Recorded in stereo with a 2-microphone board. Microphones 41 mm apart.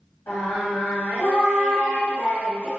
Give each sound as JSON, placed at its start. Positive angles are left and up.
{"t": 0.3, "sound": "singing", "side_deg": 70, "distance_m": 2.0}